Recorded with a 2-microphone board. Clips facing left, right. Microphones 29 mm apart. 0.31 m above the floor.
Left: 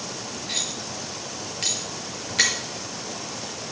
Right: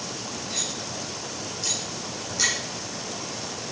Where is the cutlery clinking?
70° left (ahead or behind), 3 m.